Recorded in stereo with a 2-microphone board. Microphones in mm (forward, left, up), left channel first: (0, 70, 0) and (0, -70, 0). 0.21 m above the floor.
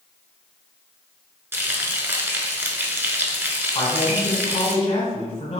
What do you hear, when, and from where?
1.5 s frying: 15° right (ahead or behind), 0.6 m
3.8 s a man speaking: 50° left (ahead or behind), 1.4 m